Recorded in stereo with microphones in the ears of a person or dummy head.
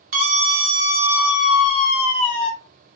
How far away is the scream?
About 0.7 m.